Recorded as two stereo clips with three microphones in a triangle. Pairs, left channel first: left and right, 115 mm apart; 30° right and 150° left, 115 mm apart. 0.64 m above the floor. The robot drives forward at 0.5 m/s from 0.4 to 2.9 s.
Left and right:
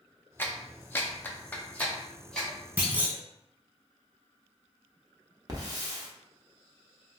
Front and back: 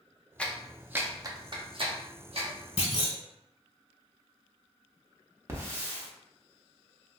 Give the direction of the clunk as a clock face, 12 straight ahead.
1 o'clock.